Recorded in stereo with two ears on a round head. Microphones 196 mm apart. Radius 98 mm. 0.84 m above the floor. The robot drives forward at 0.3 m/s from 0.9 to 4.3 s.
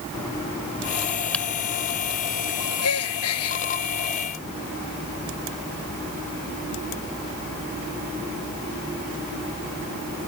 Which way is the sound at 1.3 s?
5° left (ahead or behind).